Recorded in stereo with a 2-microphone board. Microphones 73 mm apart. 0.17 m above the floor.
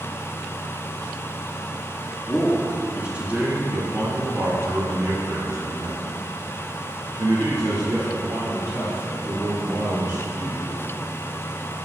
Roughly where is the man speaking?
Centre.